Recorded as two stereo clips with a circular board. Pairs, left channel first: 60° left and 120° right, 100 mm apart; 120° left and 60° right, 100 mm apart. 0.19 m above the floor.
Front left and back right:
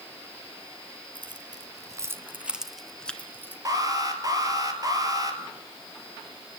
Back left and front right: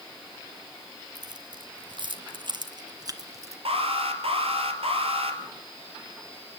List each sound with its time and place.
1.1 s keys jangling: 95° right, 1.8 m; by 3.5 s 5° right, 1.8 m
3.6 s an alarm: 70° right, 3 m